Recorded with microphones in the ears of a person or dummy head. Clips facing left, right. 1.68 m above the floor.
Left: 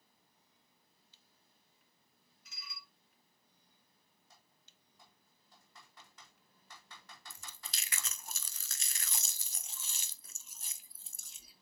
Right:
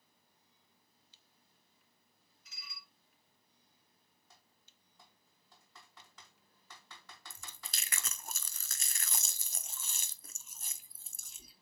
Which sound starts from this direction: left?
Dishes clattering, at 2.5 s.